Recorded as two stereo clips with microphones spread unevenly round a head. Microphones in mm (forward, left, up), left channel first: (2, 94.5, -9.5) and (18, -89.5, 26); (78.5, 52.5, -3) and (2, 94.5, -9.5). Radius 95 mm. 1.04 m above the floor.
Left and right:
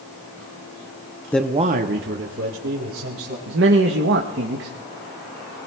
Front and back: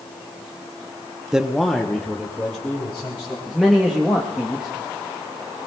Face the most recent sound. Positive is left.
turn(degrees=-120)